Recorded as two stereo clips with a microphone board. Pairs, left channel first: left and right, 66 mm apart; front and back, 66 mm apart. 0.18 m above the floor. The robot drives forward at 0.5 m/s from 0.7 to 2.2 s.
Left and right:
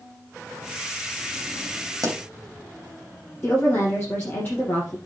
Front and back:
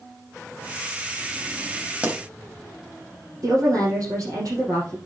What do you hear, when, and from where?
2.0 s a pop: 115° right, 2.5 m; by 2.2 s 120° right, 2.5 m
3.4 s a woman speaking: 150° left, 5 m